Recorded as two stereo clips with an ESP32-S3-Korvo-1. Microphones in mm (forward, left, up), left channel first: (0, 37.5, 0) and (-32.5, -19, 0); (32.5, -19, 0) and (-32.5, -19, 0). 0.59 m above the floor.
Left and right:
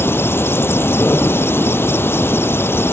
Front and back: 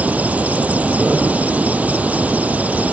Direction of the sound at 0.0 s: 115° left.